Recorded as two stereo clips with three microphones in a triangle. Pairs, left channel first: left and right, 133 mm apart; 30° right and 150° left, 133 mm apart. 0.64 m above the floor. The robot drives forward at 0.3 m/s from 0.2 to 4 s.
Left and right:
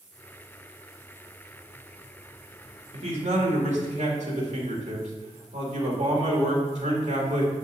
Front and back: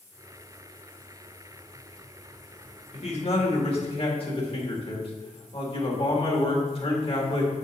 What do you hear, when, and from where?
2.9 s a man speaking: 60° right, 1.9 m; by 7.5 s 70° right, 1.8 m